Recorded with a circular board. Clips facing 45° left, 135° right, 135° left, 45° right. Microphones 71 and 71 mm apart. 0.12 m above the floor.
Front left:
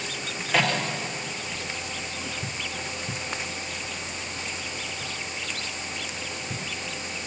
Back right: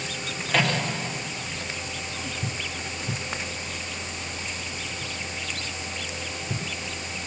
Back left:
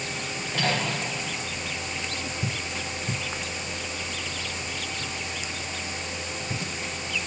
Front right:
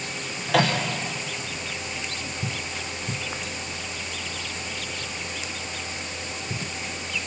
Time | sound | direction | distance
0.5 | a microwave | 40° right | 6.5 m